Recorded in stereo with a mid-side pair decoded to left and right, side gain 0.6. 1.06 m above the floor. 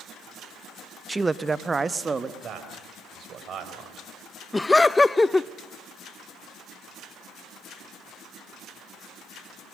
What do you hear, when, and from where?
1.1 s a man speaking: 15° right, 0.6 m; by 2.3 s 25° right, 1.5 m
2.4 s a man speaking: 45° right, 5.5 m
4.5 s laughter: 15° left, 0.6 m